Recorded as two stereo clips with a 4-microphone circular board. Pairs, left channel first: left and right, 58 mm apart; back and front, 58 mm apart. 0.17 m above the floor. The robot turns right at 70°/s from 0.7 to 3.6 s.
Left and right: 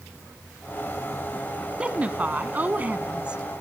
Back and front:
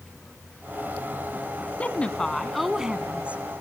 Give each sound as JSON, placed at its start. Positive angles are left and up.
{"t": 1.8, "sound": "a woman speaking", "azimuth_deg": -145, "distance_m": 1.1}